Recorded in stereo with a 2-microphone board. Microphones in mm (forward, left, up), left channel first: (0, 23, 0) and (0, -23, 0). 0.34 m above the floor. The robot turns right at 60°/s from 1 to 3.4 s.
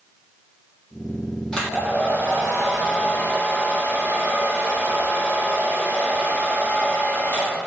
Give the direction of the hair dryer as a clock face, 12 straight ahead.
12 o'clock.